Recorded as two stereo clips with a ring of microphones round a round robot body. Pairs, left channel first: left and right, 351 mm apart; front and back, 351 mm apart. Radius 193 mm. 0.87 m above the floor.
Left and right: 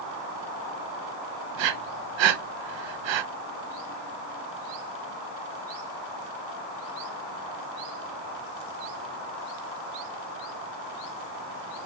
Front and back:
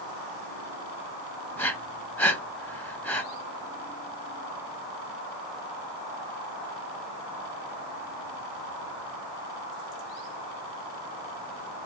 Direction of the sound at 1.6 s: 85° right.